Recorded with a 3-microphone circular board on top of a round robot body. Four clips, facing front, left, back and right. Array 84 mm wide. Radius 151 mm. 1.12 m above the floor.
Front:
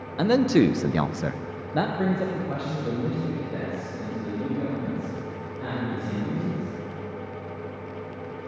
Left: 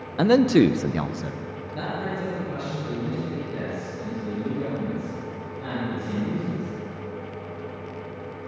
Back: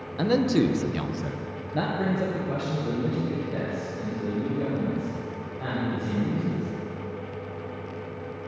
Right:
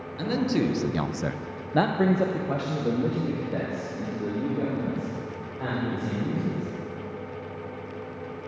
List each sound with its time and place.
0.2 s a man speaking: 65° left, 1.0 m; by 6.7 s 85° right, 6 m